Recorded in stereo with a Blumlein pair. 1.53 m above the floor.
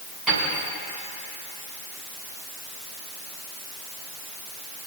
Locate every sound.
0.3 s a piano: 15° right, 6 m